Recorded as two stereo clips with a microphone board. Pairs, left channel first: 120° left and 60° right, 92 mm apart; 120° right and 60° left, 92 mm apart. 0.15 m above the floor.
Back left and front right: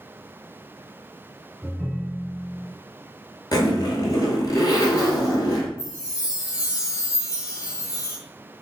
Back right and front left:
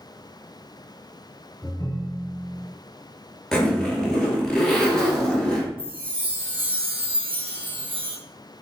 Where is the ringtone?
145° right, 1.4 m.